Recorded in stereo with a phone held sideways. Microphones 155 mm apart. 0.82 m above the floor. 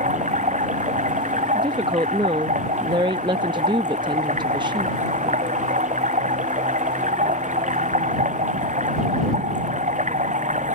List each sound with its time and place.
0.0 s running water: 55° right (ahead or behind)
1.6 s a woman speaking: 30° right (ahead or behind)